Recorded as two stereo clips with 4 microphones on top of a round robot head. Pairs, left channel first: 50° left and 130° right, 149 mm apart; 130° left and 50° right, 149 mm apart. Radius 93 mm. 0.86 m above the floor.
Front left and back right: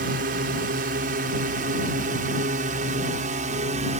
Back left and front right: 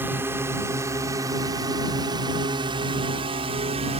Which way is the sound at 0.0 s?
125° right.